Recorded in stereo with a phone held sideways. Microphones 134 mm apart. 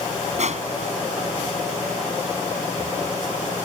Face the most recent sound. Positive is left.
turn(degrees=-60)  # may be behind; listen again after turning